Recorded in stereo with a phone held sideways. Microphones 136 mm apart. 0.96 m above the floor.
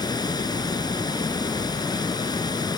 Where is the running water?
30° left (ahead or behind).